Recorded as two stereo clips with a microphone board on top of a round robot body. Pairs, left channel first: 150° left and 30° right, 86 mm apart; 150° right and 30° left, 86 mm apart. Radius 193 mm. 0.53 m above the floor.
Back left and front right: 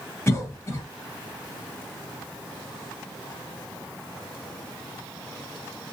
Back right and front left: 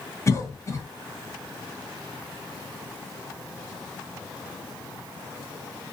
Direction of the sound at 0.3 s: 175° right.